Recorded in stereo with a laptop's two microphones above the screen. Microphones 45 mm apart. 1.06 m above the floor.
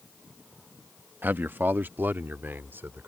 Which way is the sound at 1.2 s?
50° right (ahead or behind).